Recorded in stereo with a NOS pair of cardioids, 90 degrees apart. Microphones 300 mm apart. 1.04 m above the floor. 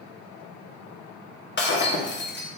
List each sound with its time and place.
1.6 s breaking glass: 40° left, 1.0 m